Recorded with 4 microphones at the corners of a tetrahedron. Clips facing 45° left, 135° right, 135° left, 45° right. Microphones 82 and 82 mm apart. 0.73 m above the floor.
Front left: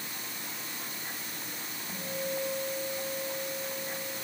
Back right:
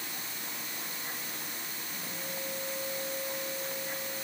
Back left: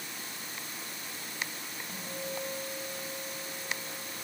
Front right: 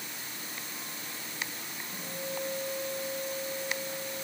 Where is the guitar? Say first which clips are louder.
Front left 9 dB, front right 1 dB; 90° left, 6 m.